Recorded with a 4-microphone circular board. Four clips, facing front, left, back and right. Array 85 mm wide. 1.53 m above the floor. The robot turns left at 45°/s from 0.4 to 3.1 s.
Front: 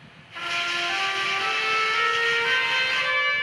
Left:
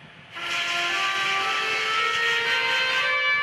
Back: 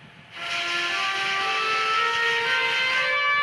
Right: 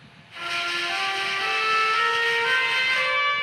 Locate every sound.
0.3 s a trumpet: 10° left, 1.7 m; by 3.3 s 110° right, 1.7 m